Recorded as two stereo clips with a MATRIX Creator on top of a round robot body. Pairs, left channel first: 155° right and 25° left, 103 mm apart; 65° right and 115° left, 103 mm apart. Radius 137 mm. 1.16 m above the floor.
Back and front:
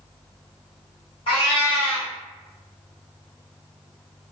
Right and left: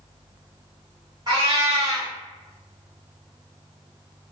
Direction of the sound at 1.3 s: 165° left.